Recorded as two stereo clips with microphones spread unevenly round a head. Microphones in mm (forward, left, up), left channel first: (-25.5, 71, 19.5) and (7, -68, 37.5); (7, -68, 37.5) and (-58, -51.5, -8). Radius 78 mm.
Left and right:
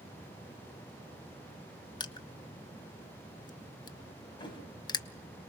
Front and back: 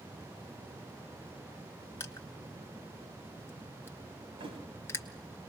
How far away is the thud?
About 4.5 m.